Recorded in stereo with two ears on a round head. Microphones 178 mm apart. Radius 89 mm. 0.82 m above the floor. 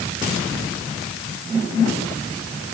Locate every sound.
Only background noise.